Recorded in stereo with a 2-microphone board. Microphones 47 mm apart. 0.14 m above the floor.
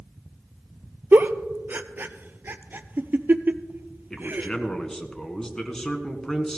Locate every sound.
1.1 s a giggle: 45° right (ahead or behind), 0.6 m
4.1 s a man speaking: 10° left (ahead or behind), 1.3 m